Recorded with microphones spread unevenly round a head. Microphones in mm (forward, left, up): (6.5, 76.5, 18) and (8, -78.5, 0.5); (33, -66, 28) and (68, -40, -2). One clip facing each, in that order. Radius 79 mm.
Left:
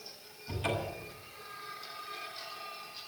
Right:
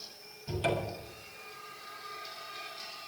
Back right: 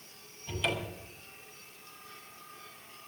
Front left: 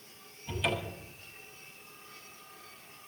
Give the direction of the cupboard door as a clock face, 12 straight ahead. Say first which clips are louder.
Right 3 dB, front left 1 dB; 2 o'clock.